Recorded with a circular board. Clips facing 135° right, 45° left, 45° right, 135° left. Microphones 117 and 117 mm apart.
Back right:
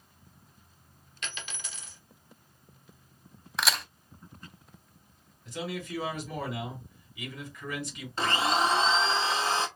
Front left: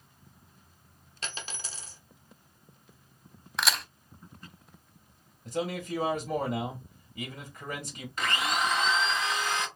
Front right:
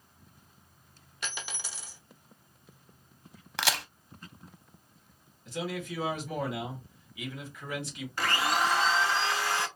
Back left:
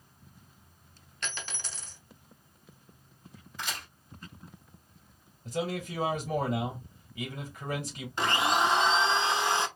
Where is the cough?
I don't hear a cough.